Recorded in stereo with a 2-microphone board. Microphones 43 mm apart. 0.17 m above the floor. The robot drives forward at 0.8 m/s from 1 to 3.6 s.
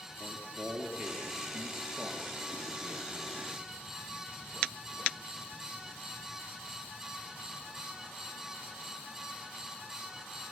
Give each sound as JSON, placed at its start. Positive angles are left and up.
{"t": 0.2, "sound": "a man speaking", "side_deg": -15, "distance_m": 3.0}